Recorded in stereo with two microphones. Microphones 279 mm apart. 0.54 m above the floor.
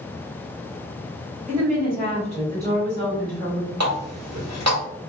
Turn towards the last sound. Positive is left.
turn(degrees=-70)  # may be behind; listen again after turning